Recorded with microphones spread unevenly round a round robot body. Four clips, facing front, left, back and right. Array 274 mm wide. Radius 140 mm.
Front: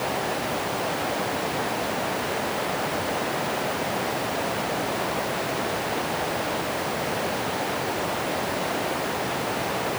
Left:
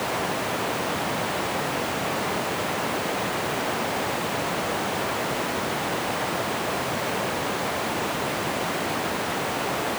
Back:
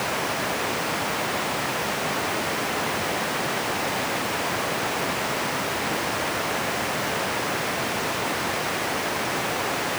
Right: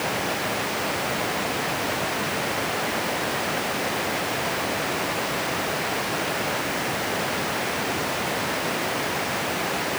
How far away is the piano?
No piano in this recording.